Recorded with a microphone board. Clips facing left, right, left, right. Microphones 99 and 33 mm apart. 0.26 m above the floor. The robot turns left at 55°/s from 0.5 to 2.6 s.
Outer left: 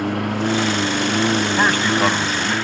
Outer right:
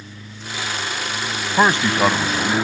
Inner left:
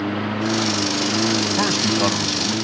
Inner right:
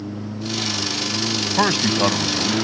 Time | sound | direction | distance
0.0 | a lawn mower | 70° left (ahead or behind) | ?
1.6 | a man speaking | 140° right | ?